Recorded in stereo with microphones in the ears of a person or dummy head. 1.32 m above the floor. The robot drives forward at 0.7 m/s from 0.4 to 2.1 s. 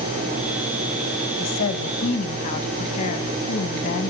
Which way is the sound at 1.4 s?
65° left (ahead or behind).